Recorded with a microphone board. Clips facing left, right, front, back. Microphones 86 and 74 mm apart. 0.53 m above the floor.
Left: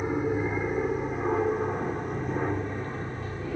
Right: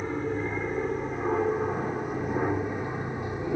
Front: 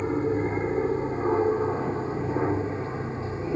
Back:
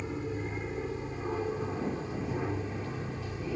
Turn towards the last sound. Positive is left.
turn(degrees=-30)